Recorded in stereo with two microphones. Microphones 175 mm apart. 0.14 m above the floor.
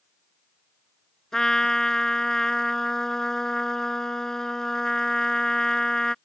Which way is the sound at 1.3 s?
5° left (ahead or behind).